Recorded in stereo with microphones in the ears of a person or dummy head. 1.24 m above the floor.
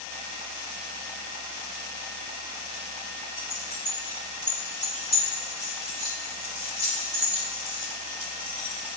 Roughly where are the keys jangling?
Left.